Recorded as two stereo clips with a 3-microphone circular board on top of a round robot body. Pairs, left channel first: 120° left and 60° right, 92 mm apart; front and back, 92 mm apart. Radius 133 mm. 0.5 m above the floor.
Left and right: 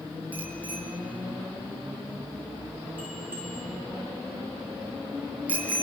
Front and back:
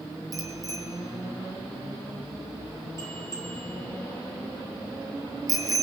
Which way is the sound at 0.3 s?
135° right.